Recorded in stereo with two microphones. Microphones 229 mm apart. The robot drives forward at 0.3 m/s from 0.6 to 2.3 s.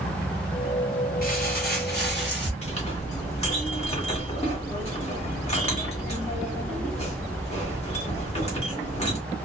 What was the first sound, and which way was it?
Crumpling, 40° left (ahead or behind).